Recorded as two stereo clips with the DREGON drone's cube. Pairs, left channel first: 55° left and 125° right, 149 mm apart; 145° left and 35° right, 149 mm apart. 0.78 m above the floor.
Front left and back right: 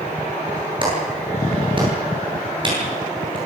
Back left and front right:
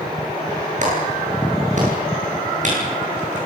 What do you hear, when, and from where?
0.8 s a clap: 70° right, 10 m